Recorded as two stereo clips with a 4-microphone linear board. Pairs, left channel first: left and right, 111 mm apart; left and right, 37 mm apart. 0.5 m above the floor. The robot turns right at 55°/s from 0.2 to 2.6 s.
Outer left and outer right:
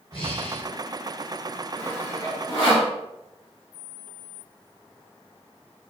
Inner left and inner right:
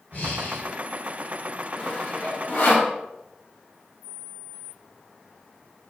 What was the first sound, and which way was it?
Breathing, 55° left (ahead or behind).